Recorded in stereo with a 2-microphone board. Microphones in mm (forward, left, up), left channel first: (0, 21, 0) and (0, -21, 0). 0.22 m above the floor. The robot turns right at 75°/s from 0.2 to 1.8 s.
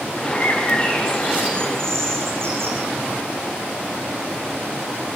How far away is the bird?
About 8 m.